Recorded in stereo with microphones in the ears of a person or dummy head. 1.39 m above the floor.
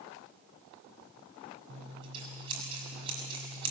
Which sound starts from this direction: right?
Scissors, at 1.7 s.